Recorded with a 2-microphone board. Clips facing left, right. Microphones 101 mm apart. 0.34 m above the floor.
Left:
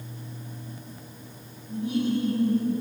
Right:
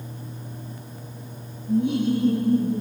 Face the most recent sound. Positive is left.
turn(degrees=-75)  # may be behind; listen again after turning